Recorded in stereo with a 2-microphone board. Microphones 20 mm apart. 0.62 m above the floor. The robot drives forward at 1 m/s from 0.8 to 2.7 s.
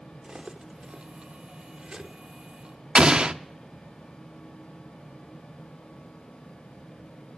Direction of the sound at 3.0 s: 45° right (ahead or behind).